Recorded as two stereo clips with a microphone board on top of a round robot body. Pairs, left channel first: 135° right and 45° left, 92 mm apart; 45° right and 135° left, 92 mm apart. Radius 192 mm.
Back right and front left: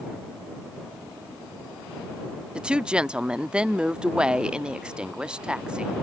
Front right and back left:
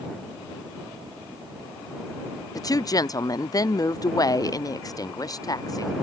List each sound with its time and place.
2.5 s a woman speaking: 30° right